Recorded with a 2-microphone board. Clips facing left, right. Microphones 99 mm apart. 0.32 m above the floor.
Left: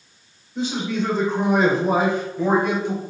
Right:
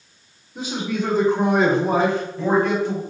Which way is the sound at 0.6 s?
10° right (ahead or behind).